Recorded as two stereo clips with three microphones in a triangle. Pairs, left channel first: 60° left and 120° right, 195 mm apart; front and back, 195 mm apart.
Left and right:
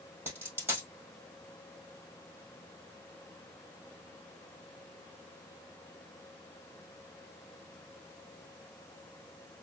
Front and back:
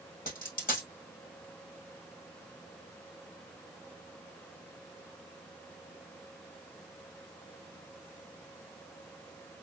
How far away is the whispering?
No whispering in this recording.